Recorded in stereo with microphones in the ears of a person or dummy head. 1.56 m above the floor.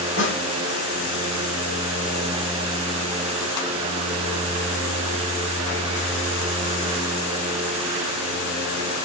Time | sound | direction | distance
0.2 | a snare drum | 65° left (ahead or behind) | 6 m